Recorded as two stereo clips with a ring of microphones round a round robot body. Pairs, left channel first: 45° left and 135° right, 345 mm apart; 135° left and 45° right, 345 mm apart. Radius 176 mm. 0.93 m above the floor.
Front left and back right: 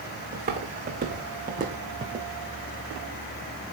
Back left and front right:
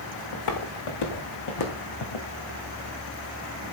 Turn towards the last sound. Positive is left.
turn(degrees=155)